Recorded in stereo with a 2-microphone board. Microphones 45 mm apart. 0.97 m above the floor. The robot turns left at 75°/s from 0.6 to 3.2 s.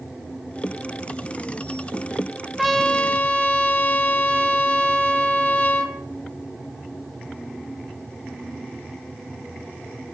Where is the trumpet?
170° right, 1.1 m; by 6.0 s 145° left, 1.1 m.